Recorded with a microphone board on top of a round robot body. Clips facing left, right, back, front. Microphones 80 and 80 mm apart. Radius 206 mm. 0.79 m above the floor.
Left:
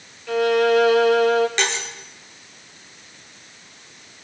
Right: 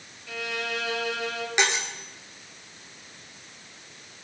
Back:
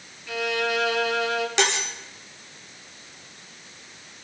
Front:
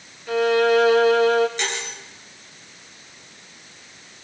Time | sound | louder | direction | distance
0.3 | a violin | left 16 dB, front 9 dB | 50° left | 1.4 m
1.6 | cutlery clinking | left 1 dB, back 4 dB | 165° right | 1.7 m